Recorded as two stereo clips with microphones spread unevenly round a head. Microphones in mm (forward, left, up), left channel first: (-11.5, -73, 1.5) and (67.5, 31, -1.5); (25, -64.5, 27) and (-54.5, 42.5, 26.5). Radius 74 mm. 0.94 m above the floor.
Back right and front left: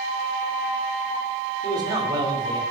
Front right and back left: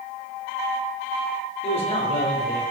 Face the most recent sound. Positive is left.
turn(degrees=-5)